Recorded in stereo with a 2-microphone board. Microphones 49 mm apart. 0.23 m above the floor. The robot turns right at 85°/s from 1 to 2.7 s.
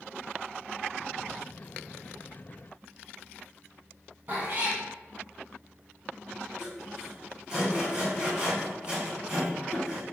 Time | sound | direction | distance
4.3 | a cat meowing | 35° right (ahead or behind) | 1.3 m
6.6 | sawing | 20° right (ahead or behind) | 1.3 m